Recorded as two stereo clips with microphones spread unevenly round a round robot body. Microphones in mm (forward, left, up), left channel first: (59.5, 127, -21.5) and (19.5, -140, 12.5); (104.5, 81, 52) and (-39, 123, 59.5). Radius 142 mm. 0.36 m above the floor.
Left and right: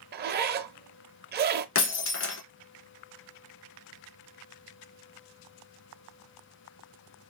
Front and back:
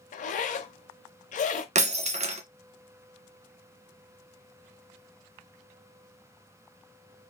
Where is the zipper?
40° right, 0.6 m.